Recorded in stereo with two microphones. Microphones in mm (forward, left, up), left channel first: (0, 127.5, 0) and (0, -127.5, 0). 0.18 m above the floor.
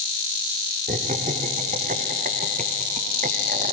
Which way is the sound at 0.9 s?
30° right (ahead or behind).